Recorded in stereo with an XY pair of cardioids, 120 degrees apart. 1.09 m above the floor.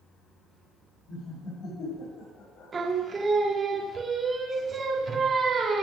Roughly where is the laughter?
Left.